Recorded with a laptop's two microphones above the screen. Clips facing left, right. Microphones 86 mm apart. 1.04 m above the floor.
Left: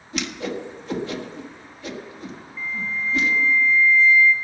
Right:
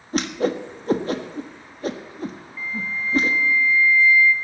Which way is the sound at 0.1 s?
40° right (ahead or behind).